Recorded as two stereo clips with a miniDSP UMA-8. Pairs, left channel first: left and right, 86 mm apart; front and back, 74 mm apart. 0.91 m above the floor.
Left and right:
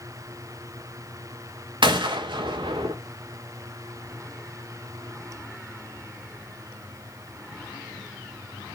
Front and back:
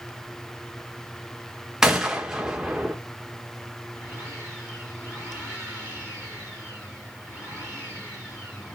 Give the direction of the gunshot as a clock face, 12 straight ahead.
3 o'clock.